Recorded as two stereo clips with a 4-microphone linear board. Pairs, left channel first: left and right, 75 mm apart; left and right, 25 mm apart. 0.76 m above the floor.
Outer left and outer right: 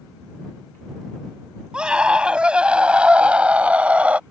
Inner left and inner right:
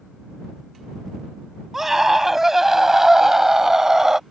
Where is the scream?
15° right (ahead or behind); by 4.2 s 20° right (ahead or behind).